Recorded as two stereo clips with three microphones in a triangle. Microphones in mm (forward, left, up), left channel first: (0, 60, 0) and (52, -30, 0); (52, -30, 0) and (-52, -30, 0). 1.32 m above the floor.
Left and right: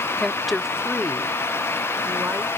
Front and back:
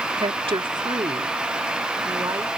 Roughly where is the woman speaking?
Behind right.